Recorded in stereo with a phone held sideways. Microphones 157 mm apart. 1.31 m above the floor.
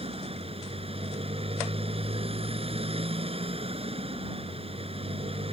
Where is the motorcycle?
40° right (ahead or behind).